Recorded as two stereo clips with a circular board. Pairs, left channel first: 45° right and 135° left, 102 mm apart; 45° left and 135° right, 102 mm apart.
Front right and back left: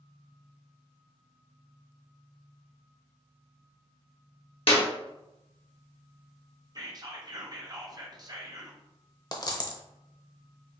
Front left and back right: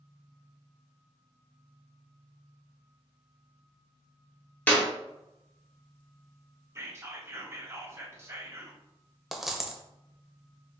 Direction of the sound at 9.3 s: 50° right.